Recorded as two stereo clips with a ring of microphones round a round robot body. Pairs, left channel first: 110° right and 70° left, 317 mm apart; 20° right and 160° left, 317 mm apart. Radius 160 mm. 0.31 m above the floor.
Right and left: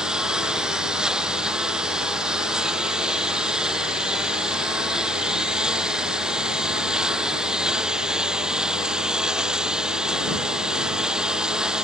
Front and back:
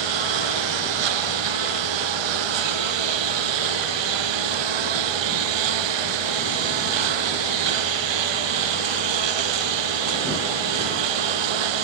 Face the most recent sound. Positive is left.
turn(degrees=155)